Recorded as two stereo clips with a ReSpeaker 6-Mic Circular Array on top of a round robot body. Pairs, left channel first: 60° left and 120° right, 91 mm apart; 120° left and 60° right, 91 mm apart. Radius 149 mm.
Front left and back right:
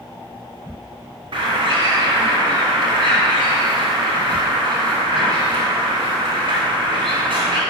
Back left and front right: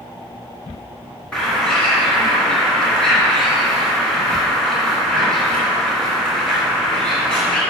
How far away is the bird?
About 1.9 m.